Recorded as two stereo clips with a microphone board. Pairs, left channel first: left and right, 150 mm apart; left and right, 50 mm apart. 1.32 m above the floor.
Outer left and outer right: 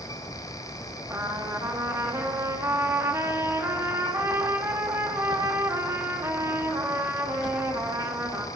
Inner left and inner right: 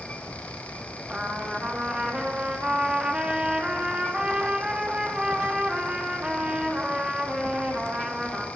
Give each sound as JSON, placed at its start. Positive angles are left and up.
{"t": 1.1, "sound": "a trumpet", "side_deg": -20, "distance_m": 2.0}